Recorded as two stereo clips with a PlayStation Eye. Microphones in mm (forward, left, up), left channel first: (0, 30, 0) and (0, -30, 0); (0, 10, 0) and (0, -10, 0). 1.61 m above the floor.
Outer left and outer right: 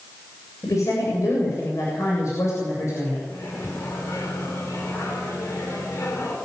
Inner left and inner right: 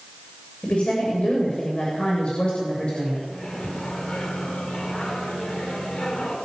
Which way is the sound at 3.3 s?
50° left (ahead or behind).